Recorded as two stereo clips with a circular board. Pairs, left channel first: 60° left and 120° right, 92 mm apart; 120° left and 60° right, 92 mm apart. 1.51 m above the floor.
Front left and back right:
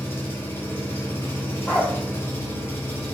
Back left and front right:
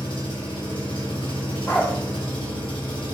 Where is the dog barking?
110° left, 1.0 m.